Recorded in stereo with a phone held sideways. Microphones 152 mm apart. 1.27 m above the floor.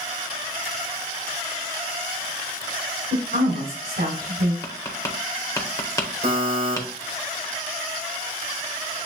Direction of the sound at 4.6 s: 20° left (ahead or behind).